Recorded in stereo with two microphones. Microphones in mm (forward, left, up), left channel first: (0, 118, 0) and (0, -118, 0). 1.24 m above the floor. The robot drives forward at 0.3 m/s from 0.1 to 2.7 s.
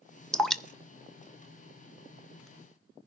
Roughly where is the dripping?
Centre.